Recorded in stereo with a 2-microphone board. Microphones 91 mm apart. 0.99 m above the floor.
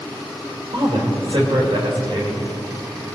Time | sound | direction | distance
0.7 | a woman speaking | 70° right (ahead or behind) | 3.5 m